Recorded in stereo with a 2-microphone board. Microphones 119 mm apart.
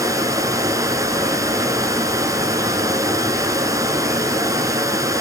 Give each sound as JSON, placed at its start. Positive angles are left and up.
{"t": 0.0, "sound": "running water", "side_deg": -30, "distance_m": 1.5}